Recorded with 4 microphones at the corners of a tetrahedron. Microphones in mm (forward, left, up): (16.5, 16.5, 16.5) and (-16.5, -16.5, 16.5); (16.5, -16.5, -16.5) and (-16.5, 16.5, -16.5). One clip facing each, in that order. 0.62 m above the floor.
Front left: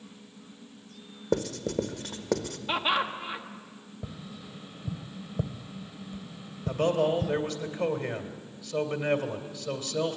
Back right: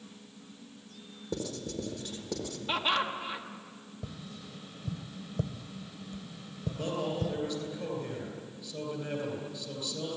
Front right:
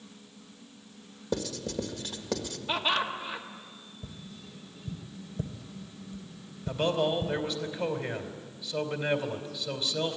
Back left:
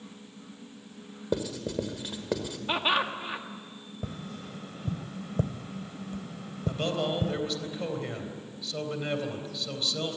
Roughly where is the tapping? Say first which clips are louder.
Front left 2 dB, back left 8 dB; behind left.